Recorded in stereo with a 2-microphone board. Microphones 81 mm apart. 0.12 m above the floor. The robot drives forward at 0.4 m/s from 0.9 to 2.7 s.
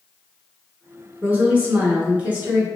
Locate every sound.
1.2 s a woman speaking: 20° right (ahead or behind), 1.1 m